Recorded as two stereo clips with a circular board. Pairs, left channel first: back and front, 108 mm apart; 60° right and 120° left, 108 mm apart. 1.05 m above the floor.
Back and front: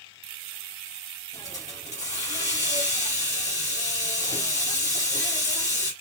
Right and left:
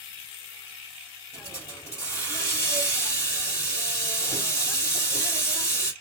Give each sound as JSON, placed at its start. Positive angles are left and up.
{"t": 1.3, "sound": "a hiss", "azimuth_deg": -120, "distance_m": 3.0}